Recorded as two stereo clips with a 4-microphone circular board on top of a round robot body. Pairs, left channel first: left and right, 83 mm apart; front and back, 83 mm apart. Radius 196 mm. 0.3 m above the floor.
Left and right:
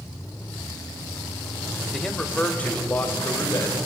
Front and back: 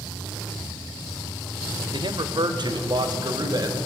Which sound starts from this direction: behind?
A man speaking, at 1.9 s.